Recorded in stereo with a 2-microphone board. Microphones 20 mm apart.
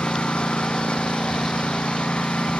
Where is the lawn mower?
65° left (ahead or behind); by 2.6 s 70° left (ahead or behind).